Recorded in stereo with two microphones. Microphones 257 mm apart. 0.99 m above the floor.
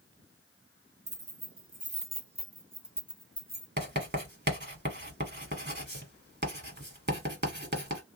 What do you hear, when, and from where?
1.1 s keys jangling: 65° right (ahead or behind), 1.2 m; by 3.7 s 25° left (ahead or behind), 1.1 m
3.8 s writing: 40° right (ahead or behind), 1.4 m